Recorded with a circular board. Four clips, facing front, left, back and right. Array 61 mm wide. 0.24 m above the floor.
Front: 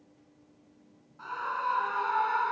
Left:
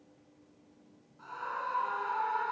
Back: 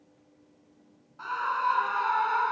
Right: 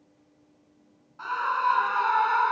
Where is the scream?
115° right, 3 m; by 2.5 s 100° right, 3 m.